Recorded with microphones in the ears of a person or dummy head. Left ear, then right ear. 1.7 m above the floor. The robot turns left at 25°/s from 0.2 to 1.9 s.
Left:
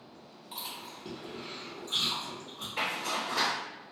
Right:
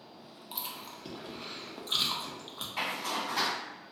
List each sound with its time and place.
0.5 s chewing: 20° right (ahead or behind), 0.5 m; by 2.7 s 50° right (ahead or behind), 0.5 m
2.8 s a zipper: 15° right (ahead or behind), 1.6 m